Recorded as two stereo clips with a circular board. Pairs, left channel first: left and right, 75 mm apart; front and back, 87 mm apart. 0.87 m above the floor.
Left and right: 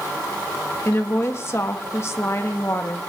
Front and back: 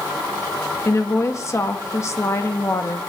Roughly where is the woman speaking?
Ahead left.